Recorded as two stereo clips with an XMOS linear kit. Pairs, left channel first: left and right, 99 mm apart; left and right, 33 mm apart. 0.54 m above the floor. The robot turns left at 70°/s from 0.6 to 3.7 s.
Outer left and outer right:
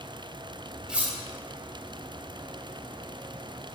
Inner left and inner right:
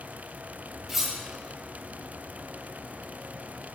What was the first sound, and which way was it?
Cutlery clinking, 5° right (ahead or behind).